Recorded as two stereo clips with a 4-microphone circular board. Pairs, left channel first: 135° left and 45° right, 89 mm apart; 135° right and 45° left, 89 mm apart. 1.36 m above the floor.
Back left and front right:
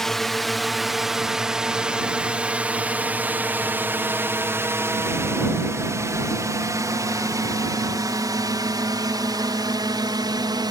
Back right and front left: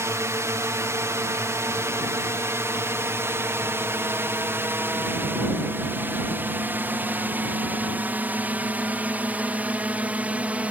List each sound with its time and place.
0.0 s a drone: 55° left; by 10.7 s 25° right